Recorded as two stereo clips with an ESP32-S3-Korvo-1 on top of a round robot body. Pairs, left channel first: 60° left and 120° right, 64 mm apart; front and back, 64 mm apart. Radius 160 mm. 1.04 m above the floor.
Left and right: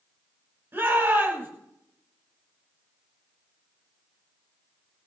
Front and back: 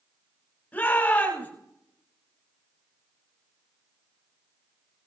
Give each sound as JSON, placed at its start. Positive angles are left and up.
{"t": 0.7, "sound": "a shout", "azimuth_deg": -65, "distance_m": 9.5}